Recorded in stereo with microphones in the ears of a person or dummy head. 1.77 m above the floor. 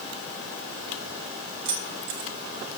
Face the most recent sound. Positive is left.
turn(degrees=-35)  # may be behind; listen again after turning